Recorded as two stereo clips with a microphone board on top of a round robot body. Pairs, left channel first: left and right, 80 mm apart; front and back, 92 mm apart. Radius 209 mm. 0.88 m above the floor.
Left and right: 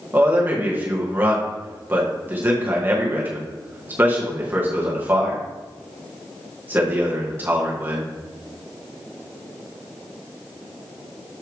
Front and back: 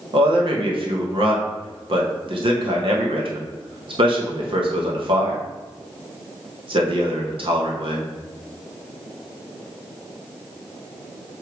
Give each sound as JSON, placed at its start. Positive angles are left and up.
{"t": 0.1, "sound": "a man speaking", "azimuth_deg": -160, "distance_m": 1.9}